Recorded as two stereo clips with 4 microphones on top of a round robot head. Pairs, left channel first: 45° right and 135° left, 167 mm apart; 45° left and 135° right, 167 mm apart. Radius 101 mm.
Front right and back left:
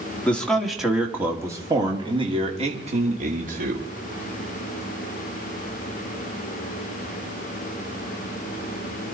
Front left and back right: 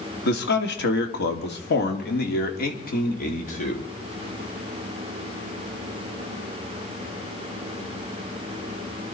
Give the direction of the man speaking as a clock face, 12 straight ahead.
11 o'clock.